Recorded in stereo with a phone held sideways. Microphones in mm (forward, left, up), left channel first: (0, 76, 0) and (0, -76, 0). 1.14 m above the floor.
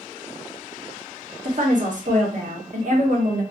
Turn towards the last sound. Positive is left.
turn(degrees=-60)  # may be behind; listen again after turning